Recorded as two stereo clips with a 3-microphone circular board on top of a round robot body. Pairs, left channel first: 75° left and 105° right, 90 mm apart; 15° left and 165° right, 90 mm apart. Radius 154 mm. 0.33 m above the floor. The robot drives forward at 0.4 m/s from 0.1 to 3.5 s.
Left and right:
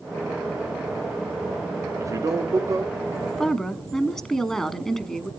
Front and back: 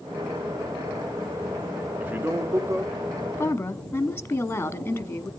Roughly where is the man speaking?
Right.